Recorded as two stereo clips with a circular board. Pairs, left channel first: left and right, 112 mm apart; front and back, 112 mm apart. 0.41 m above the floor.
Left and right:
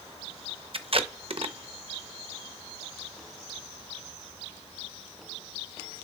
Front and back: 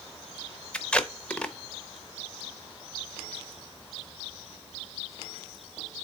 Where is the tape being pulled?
80° right, 0.7 m.